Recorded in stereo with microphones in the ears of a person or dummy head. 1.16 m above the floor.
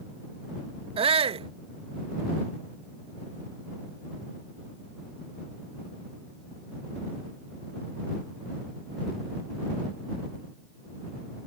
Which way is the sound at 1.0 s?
30° right (ahead or behind).